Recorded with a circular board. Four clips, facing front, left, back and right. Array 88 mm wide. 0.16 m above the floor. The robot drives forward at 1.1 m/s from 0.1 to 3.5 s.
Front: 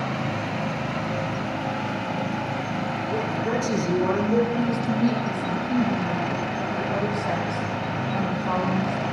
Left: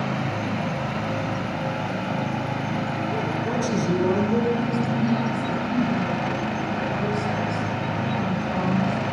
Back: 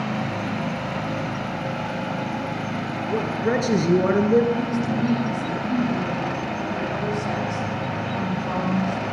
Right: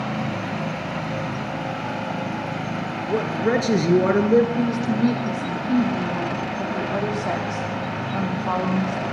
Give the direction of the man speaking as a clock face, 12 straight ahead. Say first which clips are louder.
Right 9 dB, back 4 dB; 4 o'clock.